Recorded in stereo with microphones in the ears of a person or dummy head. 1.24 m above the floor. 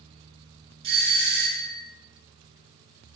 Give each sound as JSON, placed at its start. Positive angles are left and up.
{"t": 0.8, "sound": "a doorbell", "side_deg": -30, "distance_m": 0.9}